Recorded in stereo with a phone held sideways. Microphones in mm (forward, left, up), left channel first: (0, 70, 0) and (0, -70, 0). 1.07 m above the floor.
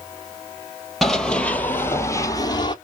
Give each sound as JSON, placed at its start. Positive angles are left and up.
{"t": 1.0, "sound": "running footsteps", "side_deg": 0, "distance_m": 1.5}